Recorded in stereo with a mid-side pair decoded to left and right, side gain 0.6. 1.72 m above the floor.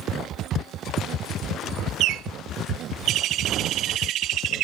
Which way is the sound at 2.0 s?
60° right.